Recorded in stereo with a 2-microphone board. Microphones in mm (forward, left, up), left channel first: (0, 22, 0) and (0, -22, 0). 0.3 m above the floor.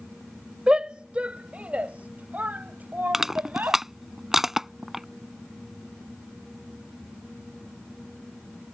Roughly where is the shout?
Right.